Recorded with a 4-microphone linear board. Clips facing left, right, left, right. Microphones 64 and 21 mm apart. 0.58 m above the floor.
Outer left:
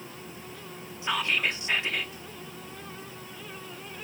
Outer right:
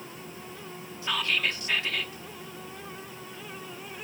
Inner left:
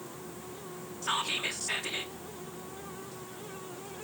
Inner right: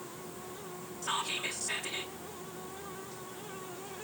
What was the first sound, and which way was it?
Whispering, 20° left (ahead or behind).